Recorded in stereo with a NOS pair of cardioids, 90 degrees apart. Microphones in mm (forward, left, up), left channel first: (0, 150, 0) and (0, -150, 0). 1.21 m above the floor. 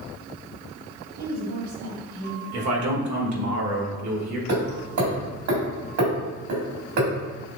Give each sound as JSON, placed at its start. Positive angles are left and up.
{"t": 1.2, "sound": "a woman speaking", "azimuth_deg": -70, "distance_m": 2.0}
{"t": 2.5, "sound": "a man speaking", "azimuth_deg": -65, "distance_m": 1.4}
{"t": 4.5, "sound": "hammering", "azimuth_deg": -70, "distance_m": 2.0}